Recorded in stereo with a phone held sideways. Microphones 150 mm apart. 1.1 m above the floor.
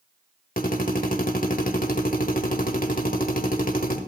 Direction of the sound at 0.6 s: 70° left (ahead or behind).